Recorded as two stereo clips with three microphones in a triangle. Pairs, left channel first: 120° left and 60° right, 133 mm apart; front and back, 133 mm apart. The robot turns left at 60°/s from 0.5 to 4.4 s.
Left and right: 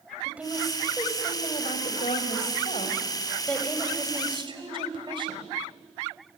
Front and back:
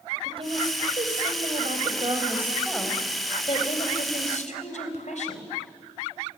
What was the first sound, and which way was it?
A woman speaking, 140° right.